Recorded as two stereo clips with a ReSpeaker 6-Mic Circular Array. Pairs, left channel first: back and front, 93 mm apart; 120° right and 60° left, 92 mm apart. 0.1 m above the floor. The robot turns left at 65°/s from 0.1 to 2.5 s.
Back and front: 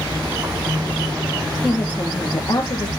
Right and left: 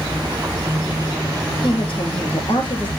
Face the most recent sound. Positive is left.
turn(degrees=-145)